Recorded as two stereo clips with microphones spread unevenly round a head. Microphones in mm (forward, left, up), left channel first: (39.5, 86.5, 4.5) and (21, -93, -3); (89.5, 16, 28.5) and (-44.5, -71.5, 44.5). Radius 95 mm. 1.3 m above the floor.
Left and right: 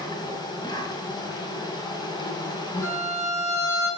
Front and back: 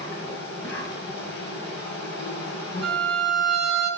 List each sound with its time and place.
0.0 s an insect: 20° left, 2.5 m
2.8 s a violin: 10° left, 6.5 m